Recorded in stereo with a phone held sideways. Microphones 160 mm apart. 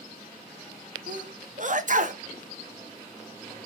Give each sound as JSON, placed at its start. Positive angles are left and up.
{"t": 1.1, "sound": "a sneeze", "side_deg": -55, "distance_m": 0.6}